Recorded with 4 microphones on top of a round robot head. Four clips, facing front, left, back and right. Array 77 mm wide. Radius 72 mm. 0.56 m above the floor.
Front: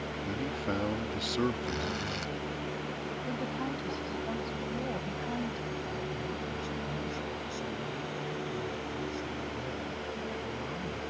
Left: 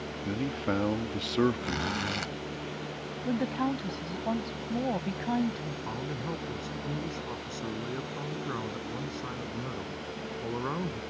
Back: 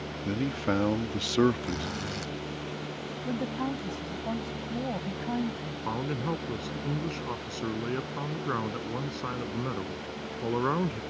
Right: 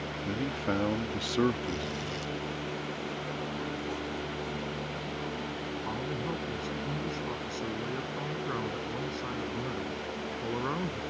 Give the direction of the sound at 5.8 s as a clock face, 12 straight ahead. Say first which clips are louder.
Right 1 dB, back 5 dB; 6 o'clock.